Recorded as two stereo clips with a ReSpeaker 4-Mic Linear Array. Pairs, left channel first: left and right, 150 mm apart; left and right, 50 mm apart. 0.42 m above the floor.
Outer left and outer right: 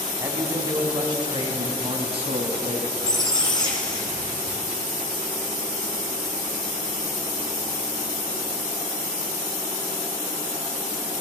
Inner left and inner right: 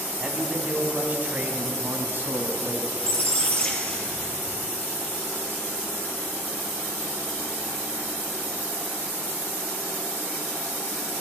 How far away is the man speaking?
About 2.5 m.